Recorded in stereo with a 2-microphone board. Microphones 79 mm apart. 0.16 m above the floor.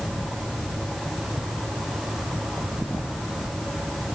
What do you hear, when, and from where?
Only background noise.